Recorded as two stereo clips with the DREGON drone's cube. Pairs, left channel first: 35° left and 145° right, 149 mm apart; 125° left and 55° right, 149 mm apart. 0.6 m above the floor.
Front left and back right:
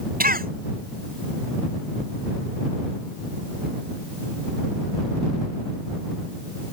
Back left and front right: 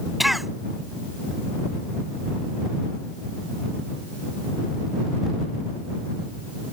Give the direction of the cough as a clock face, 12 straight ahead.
5 o'clock.